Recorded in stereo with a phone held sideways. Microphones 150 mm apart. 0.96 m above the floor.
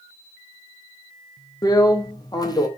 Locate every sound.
1.6 s a drill: 25° left (ahead or behind), 0.8 m